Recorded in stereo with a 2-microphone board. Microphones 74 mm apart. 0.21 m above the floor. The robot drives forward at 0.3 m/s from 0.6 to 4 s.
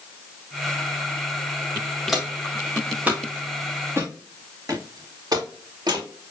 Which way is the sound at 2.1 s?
Centre (ahead or behind).